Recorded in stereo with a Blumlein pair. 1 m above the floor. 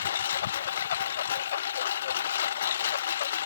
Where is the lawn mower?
60° left.